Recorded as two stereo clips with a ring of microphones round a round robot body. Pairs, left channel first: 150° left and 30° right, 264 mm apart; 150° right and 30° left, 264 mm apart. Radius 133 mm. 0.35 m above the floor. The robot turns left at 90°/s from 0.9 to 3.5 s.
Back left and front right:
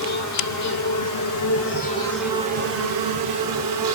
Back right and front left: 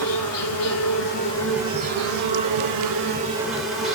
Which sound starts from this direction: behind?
An insect, at 0.0 s.